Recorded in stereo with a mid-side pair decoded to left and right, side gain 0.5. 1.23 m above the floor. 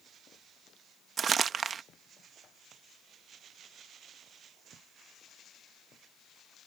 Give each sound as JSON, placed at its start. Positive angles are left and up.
{"t": 1.2, "sound": "crumpling", "azimuth_deg": -45}